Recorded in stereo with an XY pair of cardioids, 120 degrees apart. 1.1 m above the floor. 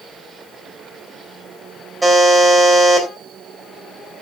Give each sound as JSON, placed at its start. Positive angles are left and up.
{"t": 2.0, "sound": "a buzzer", "azimuth_deg": -10, "distance_m": 4.0}